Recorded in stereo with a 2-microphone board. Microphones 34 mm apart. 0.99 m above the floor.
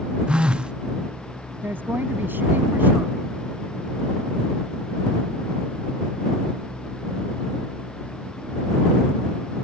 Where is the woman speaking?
75° right (ahead or behind).